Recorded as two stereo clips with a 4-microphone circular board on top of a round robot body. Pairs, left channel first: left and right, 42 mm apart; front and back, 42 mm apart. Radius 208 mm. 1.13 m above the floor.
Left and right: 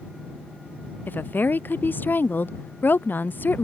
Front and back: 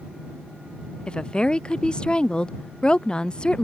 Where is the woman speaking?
65° left.